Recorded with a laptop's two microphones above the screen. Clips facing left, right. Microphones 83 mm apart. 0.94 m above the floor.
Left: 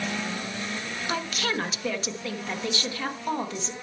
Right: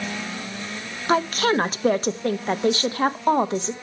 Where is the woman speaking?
45° right (ahead or behind), 1.0 m.